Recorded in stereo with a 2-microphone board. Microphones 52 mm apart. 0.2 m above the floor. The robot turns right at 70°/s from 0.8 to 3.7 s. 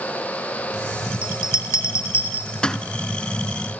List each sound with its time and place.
1.2 s a bell: 50° left (ahead or behind), 1.0 m; by 2.8 s 10° left (ahead or behind), 1.0 m